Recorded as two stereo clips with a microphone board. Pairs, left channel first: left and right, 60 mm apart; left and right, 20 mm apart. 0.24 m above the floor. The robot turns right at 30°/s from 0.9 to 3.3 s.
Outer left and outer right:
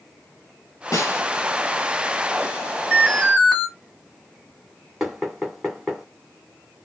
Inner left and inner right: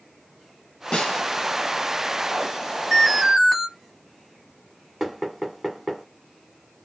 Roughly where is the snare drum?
Left.